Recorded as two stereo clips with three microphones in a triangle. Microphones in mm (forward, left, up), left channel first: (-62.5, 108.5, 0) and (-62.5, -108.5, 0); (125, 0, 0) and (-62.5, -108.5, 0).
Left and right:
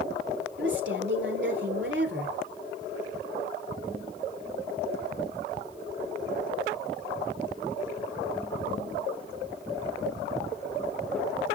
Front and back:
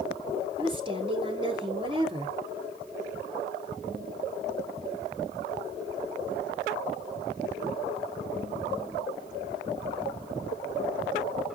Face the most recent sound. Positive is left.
turn(degrees=-90)